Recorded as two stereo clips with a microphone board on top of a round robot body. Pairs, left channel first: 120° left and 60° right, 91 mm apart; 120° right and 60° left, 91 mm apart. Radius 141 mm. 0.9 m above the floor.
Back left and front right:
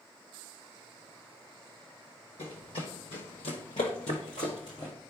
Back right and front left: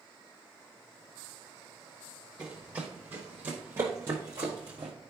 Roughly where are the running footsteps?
Behind left.